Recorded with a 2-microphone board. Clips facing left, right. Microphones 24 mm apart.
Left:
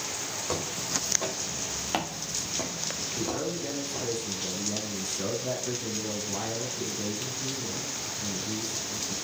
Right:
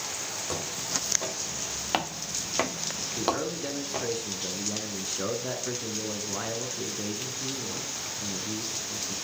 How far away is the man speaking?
About 1.3 m.